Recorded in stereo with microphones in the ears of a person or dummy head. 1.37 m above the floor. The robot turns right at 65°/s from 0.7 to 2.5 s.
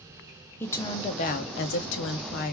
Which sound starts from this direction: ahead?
A woman speaking, at 0.6 s.